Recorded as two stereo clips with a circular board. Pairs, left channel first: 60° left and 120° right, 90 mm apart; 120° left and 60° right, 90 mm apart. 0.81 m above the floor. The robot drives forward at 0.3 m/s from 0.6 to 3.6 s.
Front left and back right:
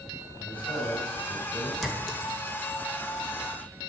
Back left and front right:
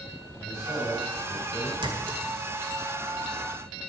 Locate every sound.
0.4 s a man speaking: 70° left, 5.5 m
1.8 s a clink: 30° right, 1.9 m; by 2.8 s 35° right, 1.6 m